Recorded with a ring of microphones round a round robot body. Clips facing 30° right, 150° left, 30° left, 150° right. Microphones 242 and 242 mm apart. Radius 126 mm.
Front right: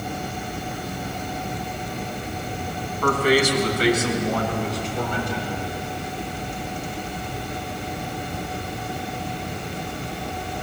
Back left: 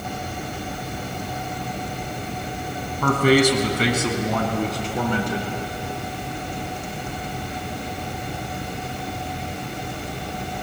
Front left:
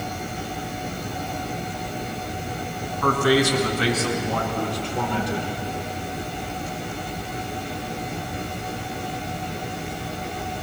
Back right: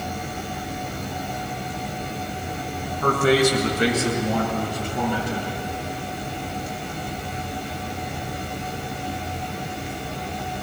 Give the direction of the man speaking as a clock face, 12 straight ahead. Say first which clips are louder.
Back left 3 dB, back right 1 dB; 7 o'clock.